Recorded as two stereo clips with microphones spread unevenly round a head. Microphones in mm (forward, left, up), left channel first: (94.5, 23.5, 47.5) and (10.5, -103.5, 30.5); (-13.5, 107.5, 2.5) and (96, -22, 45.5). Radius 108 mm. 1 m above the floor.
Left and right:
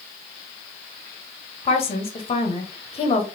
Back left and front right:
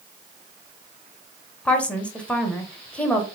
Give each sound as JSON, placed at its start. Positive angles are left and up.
{"t": 1.6, "sound": "a woman speaking", "azimuth_deg": 75, "distance_m": 0.9}